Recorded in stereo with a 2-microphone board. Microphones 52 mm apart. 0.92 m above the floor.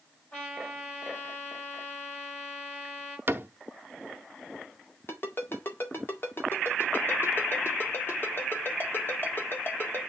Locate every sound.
0.3 s a trumpet: 35° left (ahead or behind), 6 m
3.3 s a cupboard door: 45° right (ahead or behind), 0.8 m
5.1 s a ringtone: 50° left (ahead or behind), 1.8 m